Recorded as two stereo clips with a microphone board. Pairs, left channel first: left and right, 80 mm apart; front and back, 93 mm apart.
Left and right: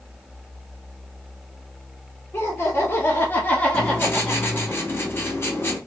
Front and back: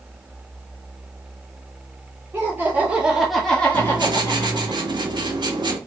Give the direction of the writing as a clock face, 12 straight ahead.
7 o'clock.